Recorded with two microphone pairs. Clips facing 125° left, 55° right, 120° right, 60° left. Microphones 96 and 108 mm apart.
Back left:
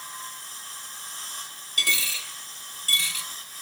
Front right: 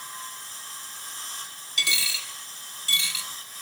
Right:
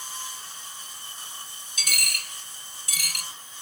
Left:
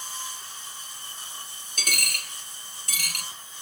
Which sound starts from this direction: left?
A dropped coin, at 1.8 s.